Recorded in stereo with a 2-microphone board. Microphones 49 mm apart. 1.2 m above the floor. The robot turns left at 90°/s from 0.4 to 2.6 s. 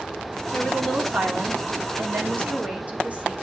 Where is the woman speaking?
40° left, 3.5 m; by 3.3 s 150° right, 3.5 m.